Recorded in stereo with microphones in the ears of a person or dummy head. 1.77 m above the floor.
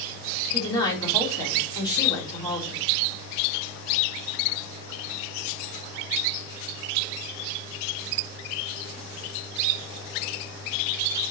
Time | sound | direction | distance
0.5 | a woman speaking | 20° left (ahead or behind) | 4 m